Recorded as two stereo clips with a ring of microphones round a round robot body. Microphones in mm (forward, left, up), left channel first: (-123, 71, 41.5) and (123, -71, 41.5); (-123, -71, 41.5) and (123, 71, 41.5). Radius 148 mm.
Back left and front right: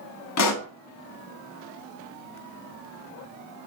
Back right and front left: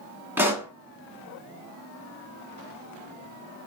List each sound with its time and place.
0.4 s a pop: 115° left, 1.0 m